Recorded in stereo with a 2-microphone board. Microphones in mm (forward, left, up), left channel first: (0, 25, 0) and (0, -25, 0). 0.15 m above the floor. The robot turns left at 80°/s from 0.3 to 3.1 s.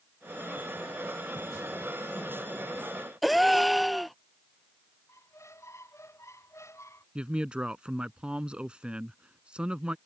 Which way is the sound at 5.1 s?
70° left (ahead or behind).